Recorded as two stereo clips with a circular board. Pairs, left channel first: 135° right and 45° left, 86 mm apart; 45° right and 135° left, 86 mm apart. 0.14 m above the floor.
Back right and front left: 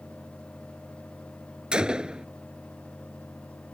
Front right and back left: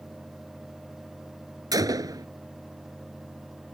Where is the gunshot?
120° left.